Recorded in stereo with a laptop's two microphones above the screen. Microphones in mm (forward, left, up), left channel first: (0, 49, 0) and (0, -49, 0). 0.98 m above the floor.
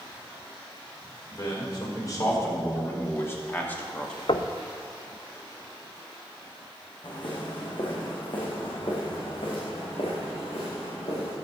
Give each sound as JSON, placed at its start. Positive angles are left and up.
{"t": 1.3, "sound": "a man speaking", "side_deg": 40, "distance_m": 5.0}
{"t": 4.3, "sound": "knocking", "side_deg": 65, "distance_m": 0.5}
{"t": 7.0, "sound": "footsteps", "side_deg": 50, "distance_m": 4.5}